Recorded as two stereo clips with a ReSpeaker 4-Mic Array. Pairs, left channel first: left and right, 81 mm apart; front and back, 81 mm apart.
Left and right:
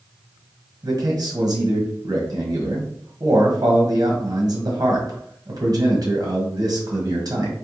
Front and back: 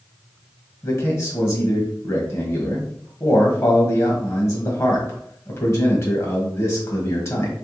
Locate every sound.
0.8 s a man speaking: 50° right, 1.4 m